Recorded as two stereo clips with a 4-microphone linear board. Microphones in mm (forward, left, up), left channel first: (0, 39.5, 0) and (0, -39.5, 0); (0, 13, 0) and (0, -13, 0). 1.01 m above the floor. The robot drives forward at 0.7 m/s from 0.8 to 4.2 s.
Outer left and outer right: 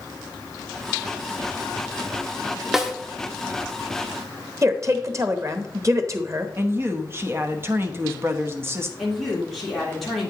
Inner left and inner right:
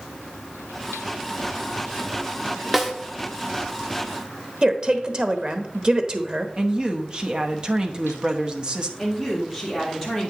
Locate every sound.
2.7 s a snare drum: 5° right (ahead or behind), 0.9 m
4.6 s a woman speaking: 40° right (ahead or behind), 0.9 m
6.6 s a woman speaking: 30° right (ahead or behind), 0.9 m
9.0 s a woman speaking: centre (ahead or behind), 2.5 m